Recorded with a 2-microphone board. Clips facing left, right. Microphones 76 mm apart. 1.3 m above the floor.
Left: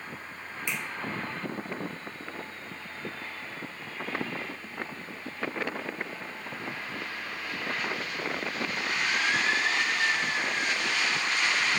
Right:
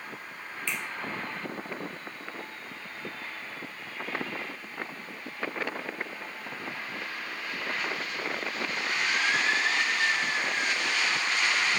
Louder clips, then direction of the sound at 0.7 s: Even; 20° left (ahead or behind).